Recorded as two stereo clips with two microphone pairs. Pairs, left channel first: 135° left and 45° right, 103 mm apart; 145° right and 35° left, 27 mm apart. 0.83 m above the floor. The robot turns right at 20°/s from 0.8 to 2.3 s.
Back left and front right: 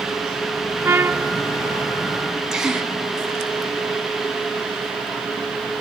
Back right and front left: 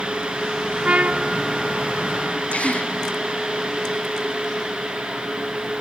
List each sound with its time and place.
0.8 s a trumpet: 20° left, 0.6 m; by 1.4 s 30° left, 0.6 m
2.5 s a gasp: 125° right, 2 m